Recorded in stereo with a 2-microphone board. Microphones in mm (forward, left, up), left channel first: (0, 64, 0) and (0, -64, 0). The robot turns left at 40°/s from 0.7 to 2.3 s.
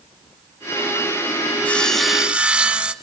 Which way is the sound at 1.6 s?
10° left (ahead or behind).